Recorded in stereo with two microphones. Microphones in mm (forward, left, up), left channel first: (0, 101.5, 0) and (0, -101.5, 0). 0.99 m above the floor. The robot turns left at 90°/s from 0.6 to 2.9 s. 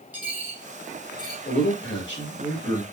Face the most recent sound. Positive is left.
turn(degrees=0)